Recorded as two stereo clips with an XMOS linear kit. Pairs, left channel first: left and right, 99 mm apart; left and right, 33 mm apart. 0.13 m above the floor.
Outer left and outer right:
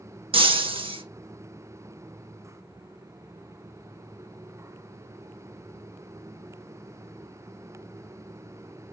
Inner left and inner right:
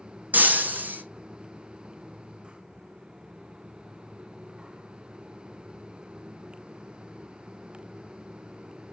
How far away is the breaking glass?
About 0.7 m.